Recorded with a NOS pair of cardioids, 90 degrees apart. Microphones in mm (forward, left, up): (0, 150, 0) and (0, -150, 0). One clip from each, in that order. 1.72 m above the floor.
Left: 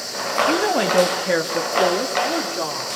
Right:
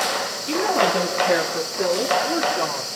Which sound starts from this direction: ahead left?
A woman speaking, at 0.5 s.